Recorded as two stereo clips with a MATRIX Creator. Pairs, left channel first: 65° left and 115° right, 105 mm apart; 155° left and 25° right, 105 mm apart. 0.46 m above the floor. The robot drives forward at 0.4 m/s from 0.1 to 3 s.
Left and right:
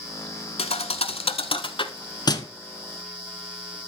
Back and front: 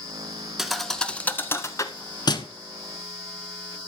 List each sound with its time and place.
0.6 s a thud: 65° left, 0.9 m; by 2.5 s 120° left, 0.9 m